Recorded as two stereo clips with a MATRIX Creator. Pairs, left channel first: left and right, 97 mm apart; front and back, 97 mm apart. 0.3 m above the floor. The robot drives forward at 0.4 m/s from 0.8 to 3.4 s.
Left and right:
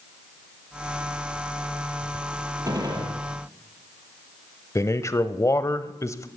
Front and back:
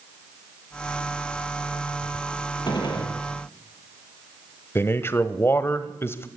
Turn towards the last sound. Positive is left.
turn(degrees=50)